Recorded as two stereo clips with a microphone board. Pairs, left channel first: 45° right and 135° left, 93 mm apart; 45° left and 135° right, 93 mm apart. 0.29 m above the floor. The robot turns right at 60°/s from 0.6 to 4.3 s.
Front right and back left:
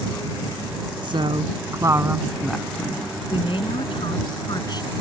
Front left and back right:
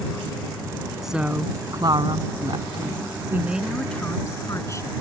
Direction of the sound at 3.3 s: 70° right.